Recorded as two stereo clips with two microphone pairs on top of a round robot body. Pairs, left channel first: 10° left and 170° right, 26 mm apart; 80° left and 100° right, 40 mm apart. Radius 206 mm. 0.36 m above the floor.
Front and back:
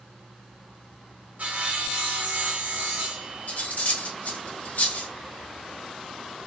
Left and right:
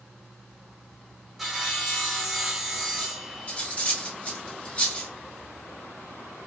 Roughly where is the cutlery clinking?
Ahead.